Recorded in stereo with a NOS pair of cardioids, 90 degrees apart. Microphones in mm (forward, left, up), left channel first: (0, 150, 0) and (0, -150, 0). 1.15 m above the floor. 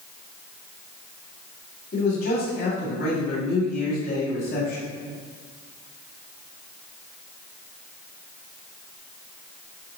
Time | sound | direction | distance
1.9 | a man speaking | 40° left | 3 m